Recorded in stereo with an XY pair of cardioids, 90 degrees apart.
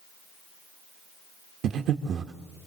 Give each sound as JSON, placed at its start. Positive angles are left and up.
{"t": 1.6, "sound": "breathing", "azimuth_deg": -65, "distance_m": 1.5}